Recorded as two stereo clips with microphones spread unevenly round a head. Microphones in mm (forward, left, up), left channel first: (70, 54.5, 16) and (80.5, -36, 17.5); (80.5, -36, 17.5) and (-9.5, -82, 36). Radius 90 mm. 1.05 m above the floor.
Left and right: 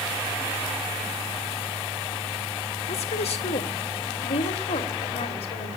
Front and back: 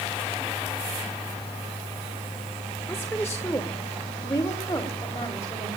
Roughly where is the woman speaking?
Left.